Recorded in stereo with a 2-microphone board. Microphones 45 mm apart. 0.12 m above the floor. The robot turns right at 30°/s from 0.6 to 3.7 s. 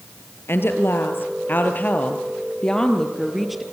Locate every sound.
0.5 s a woman speaking: 95° left, 2.5 m; by 3.6 s 175° right, 2.5 m